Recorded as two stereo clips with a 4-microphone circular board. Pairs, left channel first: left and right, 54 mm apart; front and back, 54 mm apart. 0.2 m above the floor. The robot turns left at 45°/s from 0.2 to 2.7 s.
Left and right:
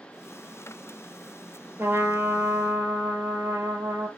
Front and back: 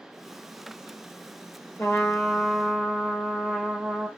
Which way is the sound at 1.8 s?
40° right.